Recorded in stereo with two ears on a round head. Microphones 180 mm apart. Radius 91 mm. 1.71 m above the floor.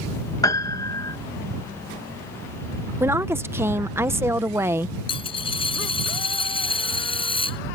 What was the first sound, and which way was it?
A piano, 15° left (ahead or behind).